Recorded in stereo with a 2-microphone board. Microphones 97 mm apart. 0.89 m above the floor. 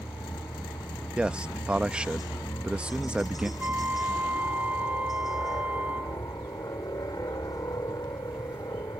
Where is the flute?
15° right (ahead or behind).